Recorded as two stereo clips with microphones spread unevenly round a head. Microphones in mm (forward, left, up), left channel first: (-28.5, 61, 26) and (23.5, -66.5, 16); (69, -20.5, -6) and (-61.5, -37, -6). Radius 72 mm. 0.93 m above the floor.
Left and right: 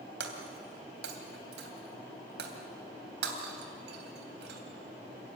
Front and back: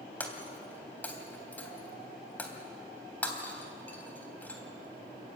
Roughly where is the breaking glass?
Right.